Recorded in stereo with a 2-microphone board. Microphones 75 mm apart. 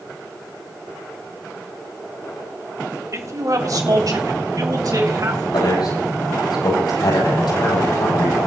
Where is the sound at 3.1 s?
45° right (ahead or behind), 1.9 m; by 5.4 s 55° right (ahead or behind), 4.5 m.